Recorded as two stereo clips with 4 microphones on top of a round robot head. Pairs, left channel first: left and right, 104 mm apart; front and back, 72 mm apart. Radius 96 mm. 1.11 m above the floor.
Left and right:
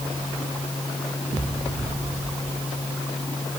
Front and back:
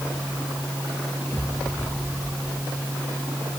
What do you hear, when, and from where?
Only background noise.